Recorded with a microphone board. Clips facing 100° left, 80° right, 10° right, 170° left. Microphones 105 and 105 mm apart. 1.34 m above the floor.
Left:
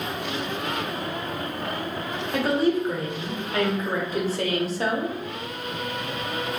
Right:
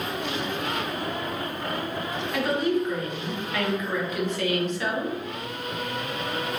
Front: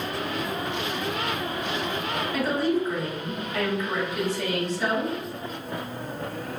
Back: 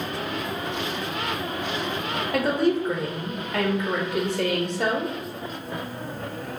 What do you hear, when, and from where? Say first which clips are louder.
2.3 s a woman speaking: left 3 dB, back 3 dB; 155° left, 0.7 m